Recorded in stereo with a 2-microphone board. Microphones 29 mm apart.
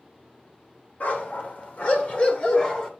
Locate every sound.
1.0 s a dog barking: 60° left (ahead or behind), 2 m; by 2.9 s 30° left (ahead or behind), 2 m